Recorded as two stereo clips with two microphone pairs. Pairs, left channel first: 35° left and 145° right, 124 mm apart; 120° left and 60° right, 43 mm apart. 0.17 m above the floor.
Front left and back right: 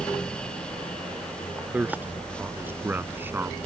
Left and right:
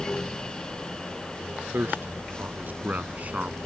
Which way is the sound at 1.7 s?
70° right.